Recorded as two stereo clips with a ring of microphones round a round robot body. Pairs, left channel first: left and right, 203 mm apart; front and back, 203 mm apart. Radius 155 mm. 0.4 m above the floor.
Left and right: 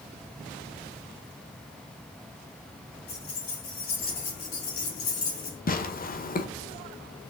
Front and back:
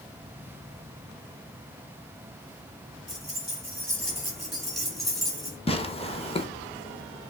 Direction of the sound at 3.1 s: 90° left.